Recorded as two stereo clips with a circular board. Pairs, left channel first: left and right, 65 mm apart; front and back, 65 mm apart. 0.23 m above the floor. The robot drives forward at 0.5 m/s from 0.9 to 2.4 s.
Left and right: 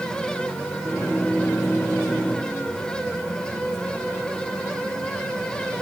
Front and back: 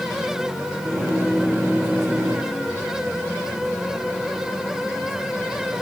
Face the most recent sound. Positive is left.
No sound to turn to.